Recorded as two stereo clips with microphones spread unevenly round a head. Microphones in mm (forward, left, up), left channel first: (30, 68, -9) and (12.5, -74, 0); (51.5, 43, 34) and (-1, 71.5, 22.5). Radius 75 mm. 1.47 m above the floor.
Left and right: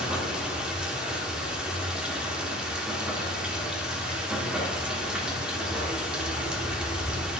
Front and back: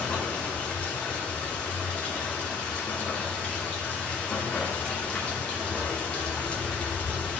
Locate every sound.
0.0 s running water: 30° right, 1.1 m